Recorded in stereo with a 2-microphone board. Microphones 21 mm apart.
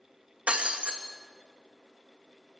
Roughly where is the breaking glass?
Right.